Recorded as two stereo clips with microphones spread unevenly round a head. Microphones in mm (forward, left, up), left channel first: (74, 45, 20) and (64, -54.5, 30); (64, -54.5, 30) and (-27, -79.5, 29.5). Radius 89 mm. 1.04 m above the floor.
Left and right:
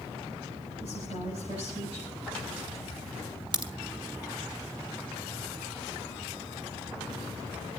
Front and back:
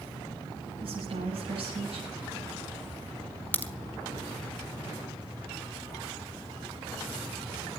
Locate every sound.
0.8 s a woman speaking: 150° right, 8.5 m
3.5 s a crack: 55° right, 2.5 m